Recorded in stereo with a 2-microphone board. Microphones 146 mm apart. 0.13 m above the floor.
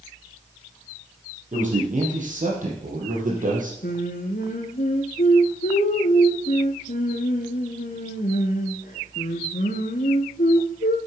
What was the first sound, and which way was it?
A man speaking, 60° right (ahead or behind).